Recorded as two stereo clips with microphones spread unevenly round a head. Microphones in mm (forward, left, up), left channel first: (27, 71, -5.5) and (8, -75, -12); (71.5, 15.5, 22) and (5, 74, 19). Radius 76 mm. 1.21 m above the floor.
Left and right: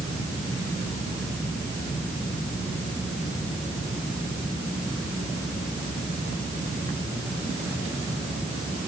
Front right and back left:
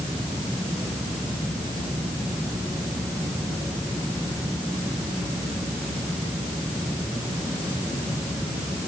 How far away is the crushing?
I don't hear crushing.